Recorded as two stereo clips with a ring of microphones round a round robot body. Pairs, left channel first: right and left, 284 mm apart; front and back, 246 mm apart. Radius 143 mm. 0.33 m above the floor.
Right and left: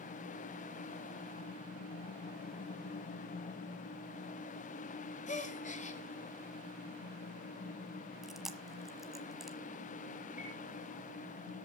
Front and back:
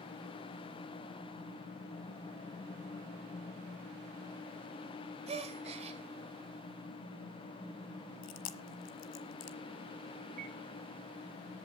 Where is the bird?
155° right, 1.9 m.